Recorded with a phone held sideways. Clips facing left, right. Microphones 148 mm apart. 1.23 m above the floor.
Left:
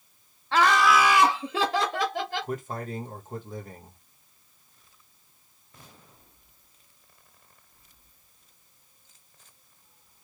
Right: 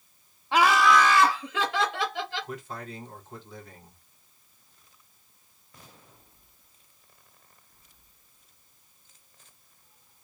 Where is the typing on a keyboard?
I don't hear typing on a keyboard.